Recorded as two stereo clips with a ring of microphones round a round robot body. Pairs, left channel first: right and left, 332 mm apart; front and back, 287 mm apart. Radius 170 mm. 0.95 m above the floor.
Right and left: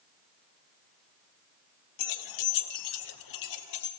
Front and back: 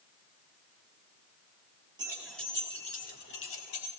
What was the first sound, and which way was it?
Keys jangling, 100° right.